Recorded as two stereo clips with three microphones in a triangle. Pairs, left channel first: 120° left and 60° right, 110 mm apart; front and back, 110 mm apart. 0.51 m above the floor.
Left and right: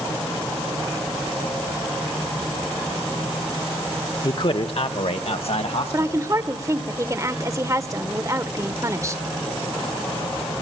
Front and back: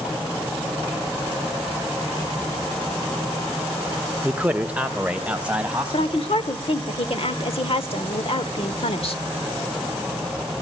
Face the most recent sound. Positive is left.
turn(degrees=-5)